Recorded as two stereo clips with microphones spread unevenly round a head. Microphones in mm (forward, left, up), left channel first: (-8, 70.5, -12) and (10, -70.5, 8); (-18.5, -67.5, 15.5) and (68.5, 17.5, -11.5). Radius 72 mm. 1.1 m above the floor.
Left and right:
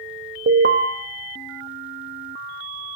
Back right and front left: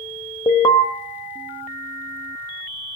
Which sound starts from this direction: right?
An alarm, at 0.5 s.